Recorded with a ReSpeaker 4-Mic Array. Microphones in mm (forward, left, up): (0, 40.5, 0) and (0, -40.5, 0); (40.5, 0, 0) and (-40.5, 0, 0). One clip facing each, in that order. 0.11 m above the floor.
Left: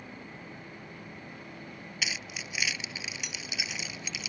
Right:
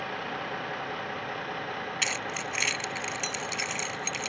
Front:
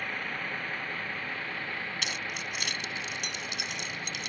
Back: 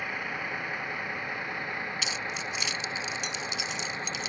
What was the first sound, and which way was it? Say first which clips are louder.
A vehicle: right 11 dB, back 1 dB; 100° right.